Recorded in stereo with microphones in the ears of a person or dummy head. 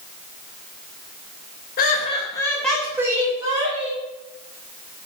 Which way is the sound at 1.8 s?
45° left (ahead or behind).